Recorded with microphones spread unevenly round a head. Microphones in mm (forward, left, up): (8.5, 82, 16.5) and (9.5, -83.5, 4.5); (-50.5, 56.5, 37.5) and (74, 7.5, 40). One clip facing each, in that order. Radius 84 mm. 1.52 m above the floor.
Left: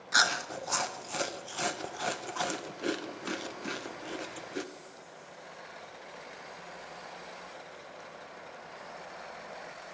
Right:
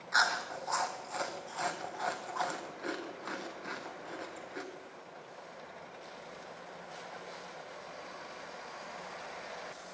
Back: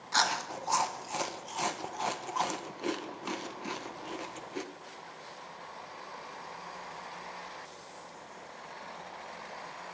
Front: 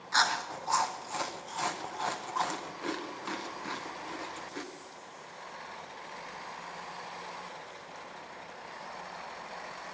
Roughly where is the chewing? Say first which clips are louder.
Left 1 dB, even; left.